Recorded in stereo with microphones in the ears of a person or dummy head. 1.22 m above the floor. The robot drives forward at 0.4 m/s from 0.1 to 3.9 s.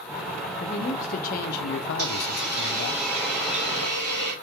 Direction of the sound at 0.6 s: 35° left (ahead or behind).